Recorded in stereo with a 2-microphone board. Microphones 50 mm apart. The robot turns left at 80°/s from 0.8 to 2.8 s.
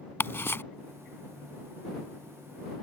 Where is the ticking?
50° left (ahead or behind).